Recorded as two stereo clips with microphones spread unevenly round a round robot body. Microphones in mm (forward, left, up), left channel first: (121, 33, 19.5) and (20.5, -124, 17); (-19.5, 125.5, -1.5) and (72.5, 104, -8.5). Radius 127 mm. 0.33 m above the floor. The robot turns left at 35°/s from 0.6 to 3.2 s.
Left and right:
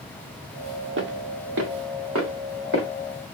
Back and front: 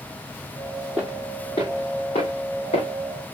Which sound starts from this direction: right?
Footsteps, at 1.0 s.